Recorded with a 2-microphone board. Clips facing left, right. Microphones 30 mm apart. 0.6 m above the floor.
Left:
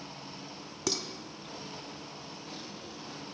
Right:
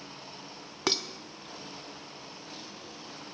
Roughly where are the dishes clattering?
Right.